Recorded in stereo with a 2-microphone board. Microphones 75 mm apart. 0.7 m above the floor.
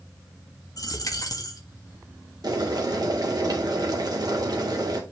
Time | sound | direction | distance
0.8 | a dropped coin | 55° left (ahead or behind) | 1.4 m
2.4 | boiling | 60° right (ahead or behind) | 1.9 m